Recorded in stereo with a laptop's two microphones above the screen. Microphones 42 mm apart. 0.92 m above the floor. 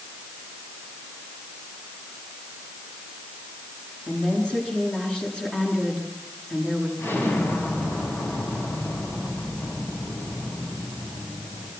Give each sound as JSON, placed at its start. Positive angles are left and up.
{"t": 4.1, "sound": "a woman speaking", "side_deg": 25, "distance_m": 9.5}
{"t": 7.0, "sound": "an explosion", "side_deg": 65, "distance_m": 6.5}